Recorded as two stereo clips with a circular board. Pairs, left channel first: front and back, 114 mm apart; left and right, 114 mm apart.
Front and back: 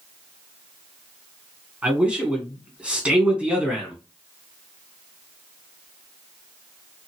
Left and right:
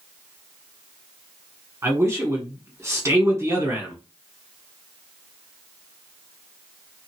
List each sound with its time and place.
1.8 s a man speaking: 110° right, 1.6 m